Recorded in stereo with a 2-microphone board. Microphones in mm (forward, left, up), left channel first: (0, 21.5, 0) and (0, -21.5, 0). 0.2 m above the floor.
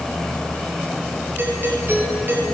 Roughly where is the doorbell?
Right.